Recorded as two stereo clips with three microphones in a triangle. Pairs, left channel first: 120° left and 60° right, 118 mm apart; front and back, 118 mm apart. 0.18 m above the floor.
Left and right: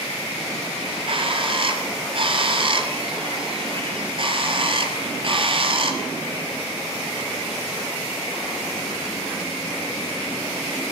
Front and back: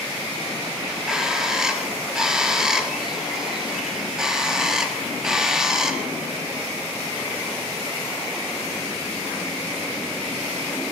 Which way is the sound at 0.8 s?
95° right.